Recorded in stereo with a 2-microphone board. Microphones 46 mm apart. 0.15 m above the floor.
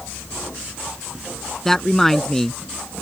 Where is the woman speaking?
10° left (ahead or behind).